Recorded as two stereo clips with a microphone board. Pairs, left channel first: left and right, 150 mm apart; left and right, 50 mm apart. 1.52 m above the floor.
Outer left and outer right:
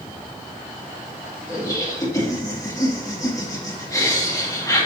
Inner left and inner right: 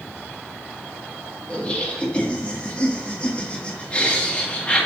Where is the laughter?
25° left (ahead or behind), 1.9 m.